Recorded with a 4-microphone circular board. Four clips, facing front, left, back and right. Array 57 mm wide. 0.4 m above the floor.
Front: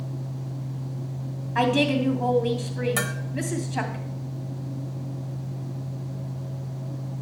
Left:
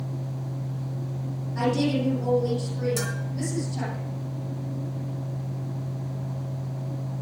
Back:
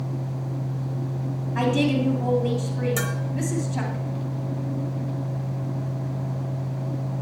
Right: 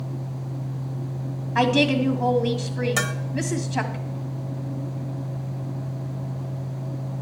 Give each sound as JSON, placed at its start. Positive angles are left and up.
{"t": 1.6, "sound": "a woman speaking", "azimuth_deg": -70, "distance_m": 2.5}
{"t": 3.0, "sound": "a bell", "azimuth_deg": -70, "distance_m": 0.9}